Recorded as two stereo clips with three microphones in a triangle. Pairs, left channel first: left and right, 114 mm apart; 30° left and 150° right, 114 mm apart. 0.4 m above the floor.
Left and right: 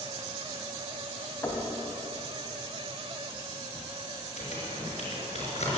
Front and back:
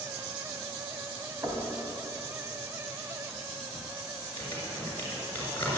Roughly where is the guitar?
No guitar in this recording.